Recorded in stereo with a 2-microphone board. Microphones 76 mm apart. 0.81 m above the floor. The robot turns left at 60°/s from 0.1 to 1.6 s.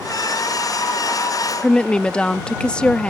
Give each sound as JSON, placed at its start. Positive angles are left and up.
{"t": 1.6, "sound": "a woman speaking", "side_deg": 10}